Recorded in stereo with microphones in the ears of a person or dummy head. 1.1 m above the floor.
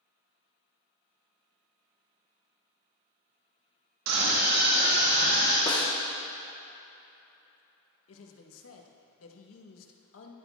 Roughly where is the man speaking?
Left.